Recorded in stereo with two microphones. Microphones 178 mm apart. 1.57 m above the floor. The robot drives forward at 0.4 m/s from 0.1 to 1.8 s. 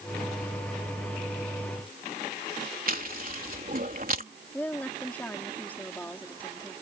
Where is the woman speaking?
10° left (ahead or behind).